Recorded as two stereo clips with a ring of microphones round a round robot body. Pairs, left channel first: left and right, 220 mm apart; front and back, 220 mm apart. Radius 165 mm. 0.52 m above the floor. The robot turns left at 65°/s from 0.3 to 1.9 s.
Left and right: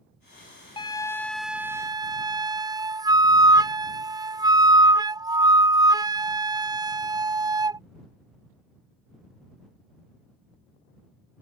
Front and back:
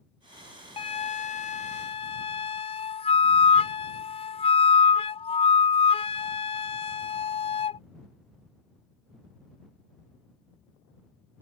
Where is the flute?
40° left; by 7.8 s 30° right.